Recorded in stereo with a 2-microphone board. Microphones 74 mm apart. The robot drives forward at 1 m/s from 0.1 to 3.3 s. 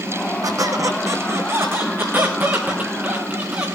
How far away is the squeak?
About 1.7 m.